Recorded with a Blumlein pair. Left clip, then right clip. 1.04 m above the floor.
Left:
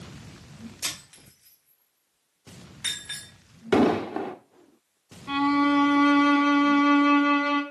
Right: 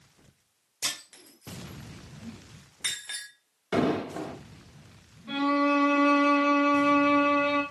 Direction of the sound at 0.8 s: 10° right.